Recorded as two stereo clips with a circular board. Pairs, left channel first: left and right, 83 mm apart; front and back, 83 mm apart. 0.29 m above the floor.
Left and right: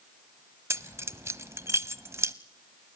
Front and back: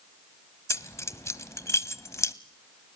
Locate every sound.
0.7 s keys jangling: 45° right, 1.0 m